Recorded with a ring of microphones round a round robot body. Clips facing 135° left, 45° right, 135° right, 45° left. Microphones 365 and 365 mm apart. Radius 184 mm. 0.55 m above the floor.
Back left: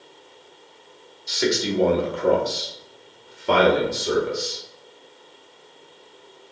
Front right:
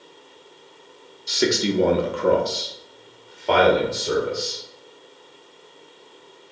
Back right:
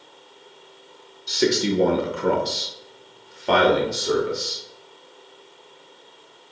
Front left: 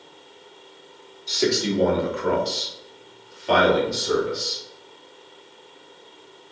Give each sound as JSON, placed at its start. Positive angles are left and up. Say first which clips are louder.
{"t": 1.3, "sound": "a man speaking", "louder": "front right 2 dB, back right 2 dB", "azimuth_deg": -70, "distance_m": 0.9}